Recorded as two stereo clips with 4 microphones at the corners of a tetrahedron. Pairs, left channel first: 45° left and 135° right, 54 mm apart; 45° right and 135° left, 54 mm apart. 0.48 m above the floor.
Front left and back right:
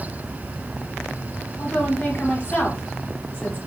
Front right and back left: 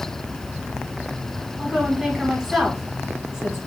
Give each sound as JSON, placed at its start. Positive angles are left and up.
{"t": 1.6, "sound": "a woman speaking", "azimuth_deg": 60, "distance_m": 1.0}